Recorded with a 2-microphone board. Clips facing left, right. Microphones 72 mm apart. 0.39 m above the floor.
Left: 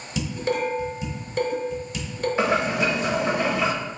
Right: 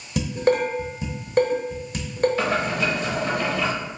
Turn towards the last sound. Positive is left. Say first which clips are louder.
# left 1 dB
turn(degrees=25)  # may be behind; listen again after turning